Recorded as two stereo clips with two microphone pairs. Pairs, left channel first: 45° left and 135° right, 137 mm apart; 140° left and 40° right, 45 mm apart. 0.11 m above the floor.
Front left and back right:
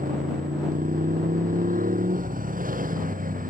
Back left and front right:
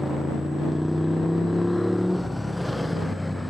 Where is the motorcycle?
130° right.